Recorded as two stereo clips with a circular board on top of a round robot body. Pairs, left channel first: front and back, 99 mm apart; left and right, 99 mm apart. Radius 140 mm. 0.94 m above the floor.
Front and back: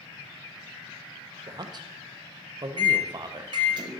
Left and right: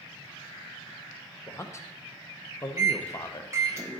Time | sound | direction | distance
1.5 | a man speaking | 145° left | 0.8 m
2.8 | a microwave | 150° right | 1.1 m